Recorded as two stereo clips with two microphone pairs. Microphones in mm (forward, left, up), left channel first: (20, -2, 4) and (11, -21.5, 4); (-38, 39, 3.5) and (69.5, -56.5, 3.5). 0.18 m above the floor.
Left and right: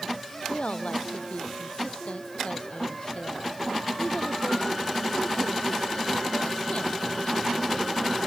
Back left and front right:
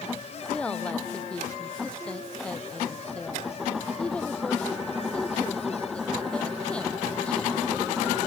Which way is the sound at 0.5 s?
55° left.